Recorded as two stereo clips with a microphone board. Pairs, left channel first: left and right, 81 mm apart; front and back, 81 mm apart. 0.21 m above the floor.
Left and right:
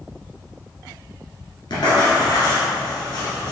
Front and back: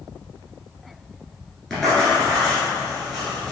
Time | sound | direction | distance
1.7 | writing | 85° left | 1.4 m